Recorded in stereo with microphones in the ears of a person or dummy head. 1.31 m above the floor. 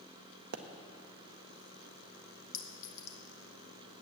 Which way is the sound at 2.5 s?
85° left.